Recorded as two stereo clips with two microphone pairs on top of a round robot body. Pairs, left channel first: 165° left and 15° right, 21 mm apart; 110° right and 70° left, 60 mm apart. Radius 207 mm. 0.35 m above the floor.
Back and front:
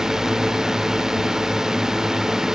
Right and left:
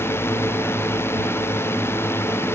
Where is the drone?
75° right.